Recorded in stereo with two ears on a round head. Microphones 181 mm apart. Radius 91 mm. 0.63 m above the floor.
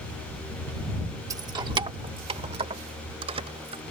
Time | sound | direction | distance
1.3 | keys jangling | 15° right (ahead or behind) | ?